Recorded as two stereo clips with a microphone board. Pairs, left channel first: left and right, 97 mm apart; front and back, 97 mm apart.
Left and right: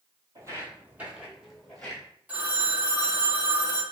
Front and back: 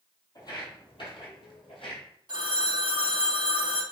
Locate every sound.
0.3 s footsteps: 40° right, 1.0 m; by 2.0 s 15° left, 1.3 m
2.3 s a phone ringing: 160° right, 0.5 m